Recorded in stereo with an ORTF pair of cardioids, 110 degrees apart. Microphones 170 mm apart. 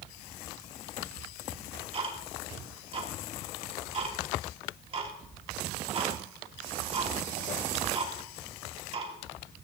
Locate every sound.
1.5 s ticking: 35° right, 3 m